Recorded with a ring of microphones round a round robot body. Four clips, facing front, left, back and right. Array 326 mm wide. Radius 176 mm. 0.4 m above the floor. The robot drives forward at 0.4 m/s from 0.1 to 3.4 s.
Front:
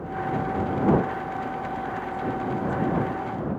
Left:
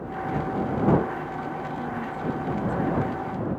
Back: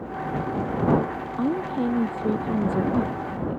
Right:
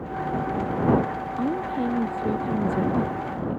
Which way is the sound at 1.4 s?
150° right.